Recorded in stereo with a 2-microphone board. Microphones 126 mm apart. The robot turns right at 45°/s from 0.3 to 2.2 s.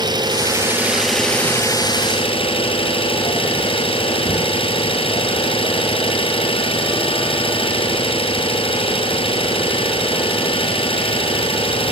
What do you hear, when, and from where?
0.0 s an engine running: 35° right, 4 m; by 11.9 s 50° left, 4 m